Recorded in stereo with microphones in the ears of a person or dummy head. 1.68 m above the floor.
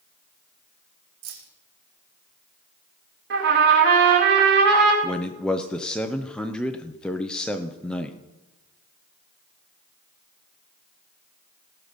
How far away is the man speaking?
About 0.8 m.